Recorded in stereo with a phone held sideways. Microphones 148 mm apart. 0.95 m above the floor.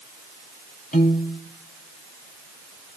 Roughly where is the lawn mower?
I don't hear a lawn mower.